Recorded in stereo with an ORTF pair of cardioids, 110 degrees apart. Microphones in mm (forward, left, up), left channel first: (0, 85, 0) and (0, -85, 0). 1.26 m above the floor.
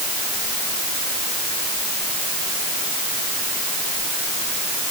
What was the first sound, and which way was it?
Only background noise.